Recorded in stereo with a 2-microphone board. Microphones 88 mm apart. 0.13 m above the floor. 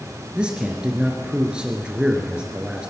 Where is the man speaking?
10° right (ahead or behind), 2 m.